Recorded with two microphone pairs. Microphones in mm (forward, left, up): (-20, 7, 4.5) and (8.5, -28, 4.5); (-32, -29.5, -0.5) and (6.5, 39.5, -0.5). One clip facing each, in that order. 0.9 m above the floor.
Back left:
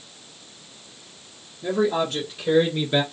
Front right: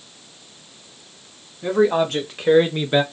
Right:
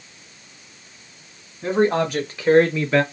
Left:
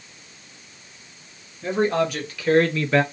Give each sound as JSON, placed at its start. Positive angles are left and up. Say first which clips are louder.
{"t": 1.6, "sound": "a man speaking", "louder": "front right 5 dB, right 2 dB", "azimuth_deg": -65, "distance_m": 2.5}